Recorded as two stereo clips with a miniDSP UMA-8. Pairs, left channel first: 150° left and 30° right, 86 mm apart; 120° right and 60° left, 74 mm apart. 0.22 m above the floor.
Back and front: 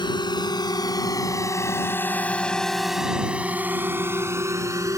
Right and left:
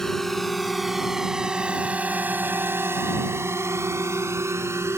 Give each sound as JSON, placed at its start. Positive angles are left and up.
{"t": 0.0, "sound": "a drone", "azimuth_deg": 160}